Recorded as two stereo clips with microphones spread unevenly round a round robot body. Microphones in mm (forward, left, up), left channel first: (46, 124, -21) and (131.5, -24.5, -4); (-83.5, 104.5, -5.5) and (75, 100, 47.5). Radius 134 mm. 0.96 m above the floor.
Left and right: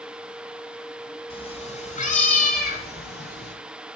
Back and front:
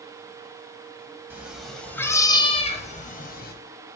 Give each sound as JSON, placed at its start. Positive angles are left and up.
{"t": 1.3, "sound": "a cat meowing", "azimuth_deg": 60, "distance_m": 1.2}